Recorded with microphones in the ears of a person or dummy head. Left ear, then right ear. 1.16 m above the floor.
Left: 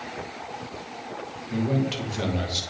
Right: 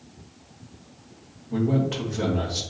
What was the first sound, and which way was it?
A man speaking, 30° left (ahead or behind).